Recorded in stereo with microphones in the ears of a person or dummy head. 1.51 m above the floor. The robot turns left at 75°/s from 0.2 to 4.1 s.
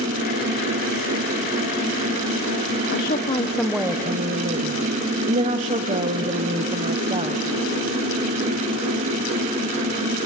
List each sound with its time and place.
2.9 s a woman speaking: 60° left, 0.8 m; by 7.4 s 30° right, 0.8 m